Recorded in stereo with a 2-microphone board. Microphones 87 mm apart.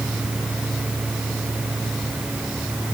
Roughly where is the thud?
No thud in this recording.